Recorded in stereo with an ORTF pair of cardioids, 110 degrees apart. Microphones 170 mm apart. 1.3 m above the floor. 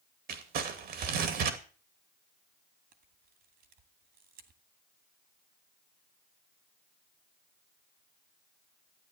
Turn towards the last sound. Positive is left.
turn(degrees=-65)